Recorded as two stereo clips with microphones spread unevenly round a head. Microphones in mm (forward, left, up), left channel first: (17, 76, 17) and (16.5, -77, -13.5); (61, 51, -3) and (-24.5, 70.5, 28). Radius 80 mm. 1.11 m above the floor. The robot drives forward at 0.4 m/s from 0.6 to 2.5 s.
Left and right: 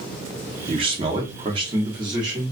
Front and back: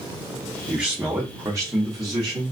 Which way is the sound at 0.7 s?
90° right.